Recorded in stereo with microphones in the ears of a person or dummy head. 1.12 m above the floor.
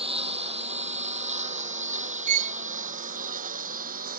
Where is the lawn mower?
35° right (ahead or behind); by 4.2 s 50° right (ahead or behind).